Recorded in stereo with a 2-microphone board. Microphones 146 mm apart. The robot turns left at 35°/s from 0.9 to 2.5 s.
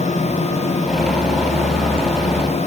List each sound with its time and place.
Only background noise.